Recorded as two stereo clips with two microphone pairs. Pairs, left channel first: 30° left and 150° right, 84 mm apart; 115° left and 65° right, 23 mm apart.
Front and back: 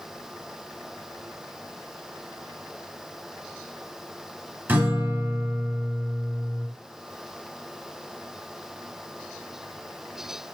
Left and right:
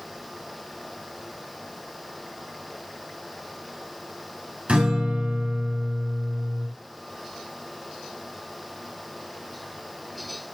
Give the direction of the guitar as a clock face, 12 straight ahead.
3 o'clock.